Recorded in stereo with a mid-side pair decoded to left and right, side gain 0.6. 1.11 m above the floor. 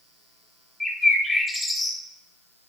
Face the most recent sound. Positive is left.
turn(degrees=10)